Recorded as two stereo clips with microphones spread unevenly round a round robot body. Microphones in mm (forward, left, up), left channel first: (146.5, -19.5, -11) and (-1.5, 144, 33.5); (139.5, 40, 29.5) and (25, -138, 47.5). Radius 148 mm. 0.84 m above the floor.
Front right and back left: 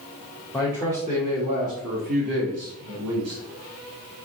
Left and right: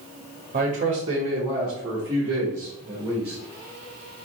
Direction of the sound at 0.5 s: 120° right.